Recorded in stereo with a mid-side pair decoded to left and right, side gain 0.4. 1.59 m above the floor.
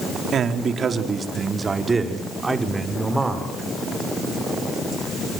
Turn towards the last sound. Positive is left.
turn(degrees=-15)